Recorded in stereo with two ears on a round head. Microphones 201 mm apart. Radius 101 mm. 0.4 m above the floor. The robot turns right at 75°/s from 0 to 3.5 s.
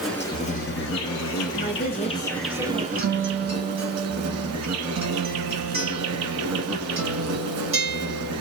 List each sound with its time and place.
0.0 s an insect: 5° right, 1.1 m; by 8.4 s 100° right, 1.1 m
1.5 s a woman speaking: 95° left, 1.2 m; by 2.9 s 165° right, 1.2 m
3.0 s a guitar: 75° right, 1.4 m; by 8.3 s 35° right, 1.4 m